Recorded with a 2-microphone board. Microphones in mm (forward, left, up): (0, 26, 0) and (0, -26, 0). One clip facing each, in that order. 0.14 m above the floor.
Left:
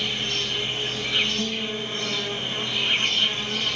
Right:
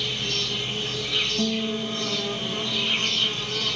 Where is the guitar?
Centre (ahead or behind), 3 m.